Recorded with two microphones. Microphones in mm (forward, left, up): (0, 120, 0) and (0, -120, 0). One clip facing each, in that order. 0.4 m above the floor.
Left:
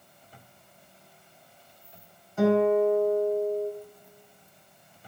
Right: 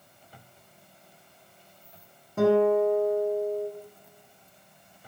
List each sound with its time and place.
2.4 s a guitar: 60° right (ahead or behind), 4 m